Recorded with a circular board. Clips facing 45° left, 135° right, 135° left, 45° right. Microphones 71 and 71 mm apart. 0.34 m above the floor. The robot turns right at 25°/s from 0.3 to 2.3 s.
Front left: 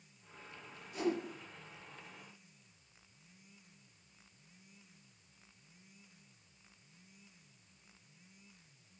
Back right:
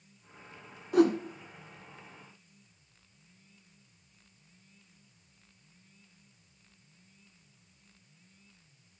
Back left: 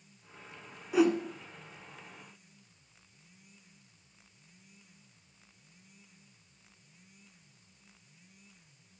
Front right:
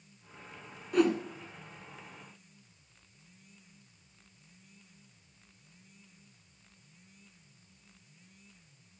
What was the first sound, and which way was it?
A whoosh, 140° right.